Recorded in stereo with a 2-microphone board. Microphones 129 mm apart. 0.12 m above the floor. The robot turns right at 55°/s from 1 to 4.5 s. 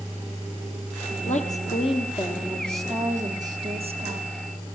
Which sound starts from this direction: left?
A woman speaking, at 1.3 s.